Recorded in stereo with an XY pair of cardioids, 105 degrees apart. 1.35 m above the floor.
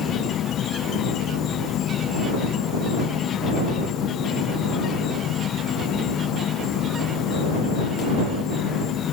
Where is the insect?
65° left.